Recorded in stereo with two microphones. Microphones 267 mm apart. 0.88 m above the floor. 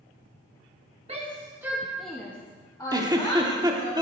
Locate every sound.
1.1 s a shout: 25° right (ahead or behind), 1.0 m; by 3.9 s 25° left (ahead or behind), 2 m
2.9 s a giggle: 15° right (ahead or behind), 1.1 m